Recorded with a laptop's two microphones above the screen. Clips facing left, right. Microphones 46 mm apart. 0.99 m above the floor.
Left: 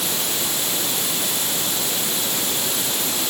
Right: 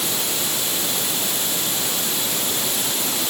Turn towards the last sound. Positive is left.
No sound to turn to.